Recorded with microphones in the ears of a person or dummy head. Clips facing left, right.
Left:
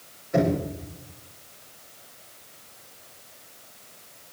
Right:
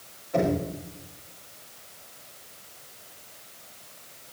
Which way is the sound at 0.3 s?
30° left (ahead or behind).